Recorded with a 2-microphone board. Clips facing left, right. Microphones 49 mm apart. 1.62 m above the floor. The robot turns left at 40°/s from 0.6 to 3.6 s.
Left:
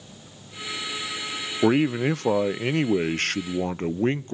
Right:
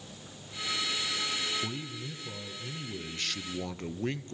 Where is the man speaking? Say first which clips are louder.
Left 18 dB; 115° left, 0.5 m; by 4.3 s 40° left, 0.5 m.